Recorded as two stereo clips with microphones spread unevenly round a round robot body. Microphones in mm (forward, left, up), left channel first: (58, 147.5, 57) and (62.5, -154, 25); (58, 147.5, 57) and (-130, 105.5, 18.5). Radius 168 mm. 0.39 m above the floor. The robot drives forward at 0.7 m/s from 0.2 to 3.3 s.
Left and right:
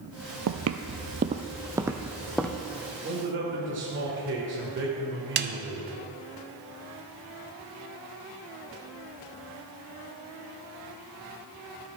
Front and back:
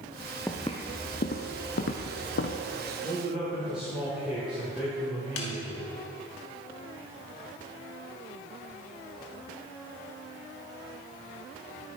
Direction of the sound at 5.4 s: 30° right.